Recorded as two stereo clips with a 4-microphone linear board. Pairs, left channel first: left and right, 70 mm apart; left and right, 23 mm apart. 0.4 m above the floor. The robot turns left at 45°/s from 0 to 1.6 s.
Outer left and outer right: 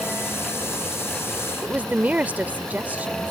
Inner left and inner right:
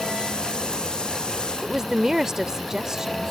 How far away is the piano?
I don't hear a piano.